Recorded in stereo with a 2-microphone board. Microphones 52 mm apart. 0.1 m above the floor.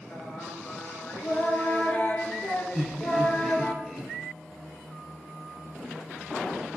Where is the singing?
30° left (ahead or behind), 0.7 m.